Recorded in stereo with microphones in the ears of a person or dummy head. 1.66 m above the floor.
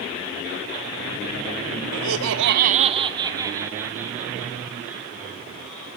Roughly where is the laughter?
Right.